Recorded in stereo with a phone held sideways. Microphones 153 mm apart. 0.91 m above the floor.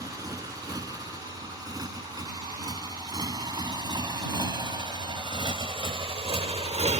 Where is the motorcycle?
25° right (ahead or behind); by 7.0 s 50° right (ahead or behind).